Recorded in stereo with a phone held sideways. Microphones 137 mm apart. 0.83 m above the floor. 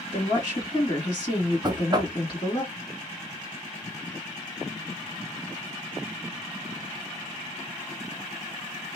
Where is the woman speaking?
35° left (ahead or behind), 2 m.